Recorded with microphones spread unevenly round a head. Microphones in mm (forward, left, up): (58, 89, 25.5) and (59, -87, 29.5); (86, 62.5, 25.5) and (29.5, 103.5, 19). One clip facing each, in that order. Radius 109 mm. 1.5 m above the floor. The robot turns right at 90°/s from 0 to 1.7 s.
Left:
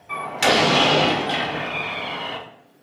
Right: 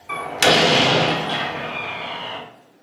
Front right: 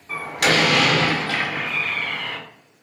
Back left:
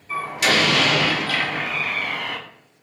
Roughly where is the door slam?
Right.